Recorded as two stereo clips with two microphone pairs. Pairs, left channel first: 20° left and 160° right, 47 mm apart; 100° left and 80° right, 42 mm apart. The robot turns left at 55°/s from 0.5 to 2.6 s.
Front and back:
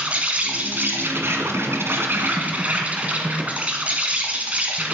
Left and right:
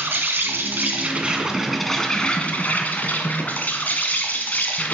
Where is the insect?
100° right, 1.6 m; by 5.0 s 145° left, 1.6 m.